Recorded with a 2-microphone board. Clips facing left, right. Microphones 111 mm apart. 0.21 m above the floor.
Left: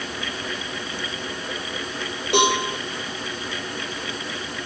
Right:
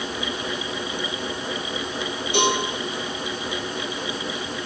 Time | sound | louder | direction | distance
2.3 | a cowbell | left 3 dB | 75° left (ahead or behind) | 6.5 m